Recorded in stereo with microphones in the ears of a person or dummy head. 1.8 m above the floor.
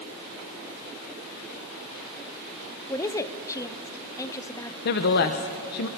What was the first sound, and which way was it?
A woman speaking, 20° left (ahead or behind).